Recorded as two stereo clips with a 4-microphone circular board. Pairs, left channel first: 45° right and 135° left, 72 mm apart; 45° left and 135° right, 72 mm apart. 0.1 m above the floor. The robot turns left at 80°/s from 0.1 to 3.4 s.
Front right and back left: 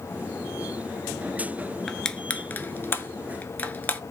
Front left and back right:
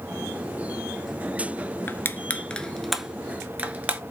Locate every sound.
1.9 s crushing: 40° left, 0.5 m; by 4.0 s 85° right, 0.5 m